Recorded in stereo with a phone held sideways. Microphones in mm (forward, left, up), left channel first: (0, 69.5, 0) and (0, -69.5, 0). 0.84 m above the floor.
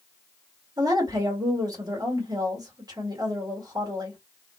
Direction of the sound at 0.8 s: 25° right (ahead or behind).